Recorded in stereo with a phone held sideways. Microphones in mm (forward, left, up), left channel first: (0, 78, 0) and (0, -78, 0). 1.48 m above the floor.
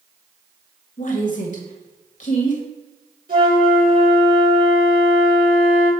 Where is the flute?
60° right (ahead or behind), 3 m.